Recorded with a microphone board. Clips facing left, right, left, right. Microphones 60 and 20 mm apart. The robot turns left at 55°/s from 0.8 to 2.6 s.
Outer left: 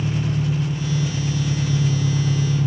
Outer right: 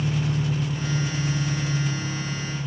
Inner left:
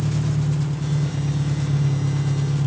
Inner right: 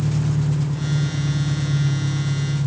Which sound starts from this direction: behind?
An engine running, at 0.0 s.